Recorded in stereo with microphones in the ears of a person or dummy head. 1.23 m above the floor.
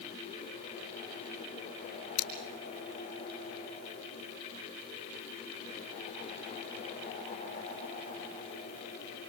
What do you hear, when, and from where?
2.2 s scissors: 35° left (ahead or behind), 4 m